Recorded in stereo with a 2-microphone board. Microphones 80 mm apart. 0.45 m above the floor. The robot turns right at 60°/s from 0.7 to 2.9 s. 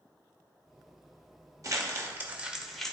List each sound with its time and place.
1.6 s crumpling: 45° right (ahead or behind), 1.3 m; by 2.9 s 10° left (ahead or behind), 1.3 m